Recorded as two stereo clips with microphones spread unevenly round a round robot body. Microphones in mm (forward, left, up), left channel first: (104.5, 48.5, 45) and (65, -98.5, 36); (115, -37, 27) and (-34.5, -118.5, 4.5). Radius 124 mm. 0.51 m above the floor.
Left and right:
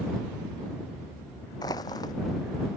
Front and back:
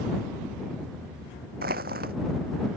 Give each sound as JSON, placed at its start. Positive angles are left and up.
{"t": 1.6, "sound": "crushing", "azimuth_deg": 150}